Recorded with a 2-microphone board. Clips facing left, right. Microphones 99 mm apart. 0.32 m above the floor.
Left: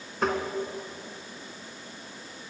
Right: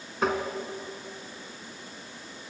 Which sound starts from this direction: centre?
Tapping, at 0.2 s.